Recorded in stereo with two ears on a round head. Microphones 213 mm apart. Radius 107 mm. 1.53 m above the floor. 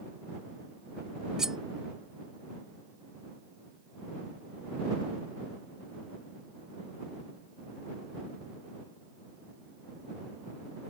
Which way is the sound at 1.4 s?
5° right (ahead or behind).